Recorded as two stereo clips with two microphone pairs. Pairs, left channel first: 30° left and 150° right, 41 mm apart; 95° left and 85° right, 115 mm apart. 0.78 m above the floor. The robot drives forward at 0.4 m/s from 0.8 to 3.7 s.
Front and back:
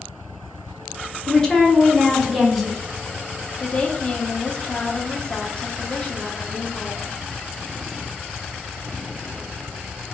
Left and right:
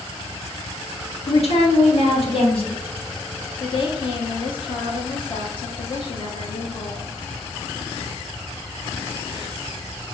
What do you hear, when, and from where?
1.3 s a woman speaking: 95° left, 1.4 m; by 2.8 s 120° left, 1.6 m
3.6 s a woman speaking: 75° left, 1.0 m; by 7.2 s 80° left, 1.0 m